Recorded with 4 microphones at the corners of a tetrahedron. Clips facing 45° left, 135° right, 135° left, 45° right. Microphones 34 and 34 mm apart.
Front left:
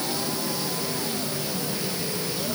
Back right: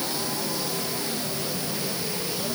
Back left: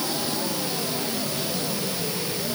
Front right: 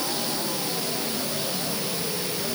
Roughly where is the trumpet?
No trumpet in this recording.